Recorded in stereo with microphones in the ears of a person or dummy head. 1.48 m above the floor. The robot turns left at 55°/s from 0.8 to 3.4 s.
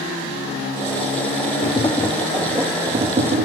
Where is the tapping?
50° left; by 3.5 s 50° right.